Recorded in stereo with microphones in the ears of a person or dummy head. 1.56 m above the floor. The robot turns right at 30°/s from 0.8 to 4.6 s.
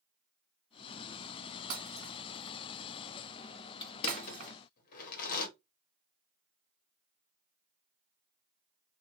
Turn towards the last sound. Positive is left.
turn(degrees=55)  # may be behind; listen again after turning